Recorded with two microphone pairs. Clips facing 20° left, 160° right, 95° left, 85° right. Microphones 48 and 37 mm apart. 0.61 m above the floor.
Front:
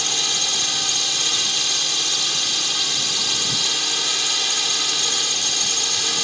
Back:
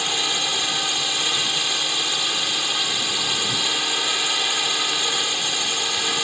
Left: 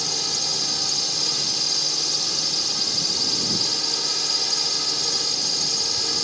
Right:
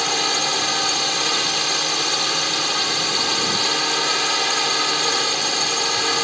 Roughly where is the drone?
Right.